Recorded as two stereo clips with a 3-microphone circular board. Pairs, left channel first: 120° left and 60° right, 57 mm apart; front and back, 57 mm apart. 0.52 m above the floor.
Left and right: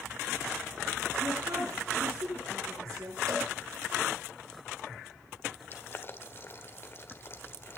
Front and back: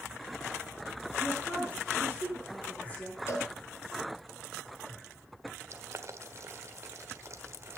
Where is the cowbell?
40° right, 4 m.